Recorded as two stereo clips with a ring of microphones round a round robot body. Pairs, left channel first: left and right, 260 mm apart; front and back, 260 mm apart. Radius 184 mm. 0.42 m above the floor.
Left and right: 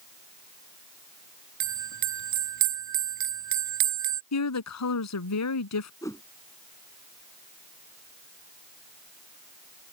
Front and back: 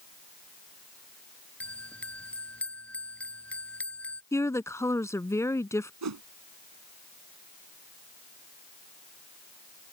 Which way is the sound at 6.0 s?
170° left.